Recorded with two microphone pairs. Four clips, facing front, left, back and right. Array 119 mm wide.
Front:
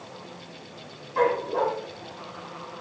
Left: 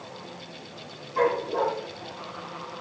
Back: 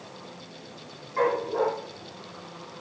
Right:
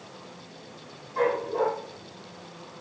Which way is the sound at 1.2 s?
10° right.